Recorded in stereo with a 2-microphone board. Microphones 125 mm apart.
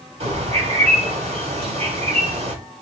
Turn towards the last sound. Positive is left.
turn(degrees=-60)  # may be behind; listen again after turning